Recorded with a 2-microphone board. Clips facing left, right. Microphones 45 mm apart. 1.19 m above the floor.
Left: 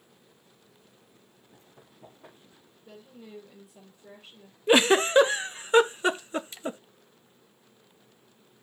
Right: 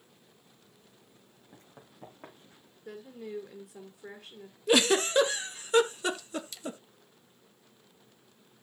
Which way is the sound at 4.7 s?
30° left (ahead or behind).